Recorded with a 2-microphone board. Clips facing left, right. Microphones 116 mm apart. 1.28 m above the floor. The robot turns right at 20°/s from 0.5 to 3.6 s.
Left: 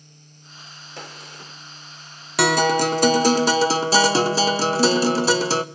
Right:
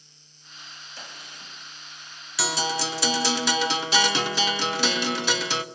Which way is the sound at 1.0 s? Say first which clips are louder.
Left 7 dB; 70° left (ahead or behind).